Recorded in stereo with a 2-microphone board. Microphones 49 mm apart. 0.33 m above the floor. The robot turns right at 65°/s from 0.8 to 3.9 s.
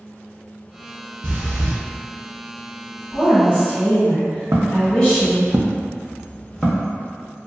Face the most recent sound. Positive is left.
turn(degrees=15)  # may be behind; listen again after turning